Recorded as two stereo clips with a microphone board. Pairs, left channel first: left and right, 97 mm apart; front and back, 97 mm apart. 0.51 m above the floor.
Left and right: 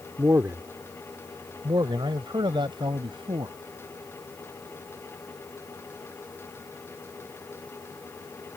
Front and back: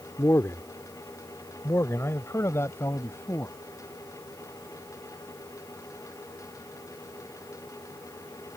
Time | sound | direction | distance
0.2 | a man speaking | 40° right | ?